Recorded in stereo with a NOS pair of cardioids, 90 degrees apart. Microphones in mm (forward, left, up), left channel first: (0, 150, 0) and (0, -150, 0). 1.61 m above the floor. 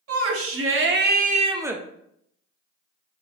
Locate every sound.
0.1 s a shout: 55° right, 1.3 m; by 1.8 s straight ahead, 0.6 m